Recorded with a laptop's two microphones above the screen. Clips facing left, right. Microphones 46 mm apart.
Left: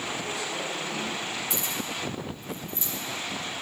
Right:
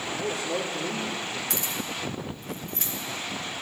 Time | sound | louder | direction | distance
0.2 | a man speaking | right 3 dB | 75° right (ahead or behind) | 3.5 m
1.5 | keys jangling | even | 75° right (ahead or behind) | 2.5 m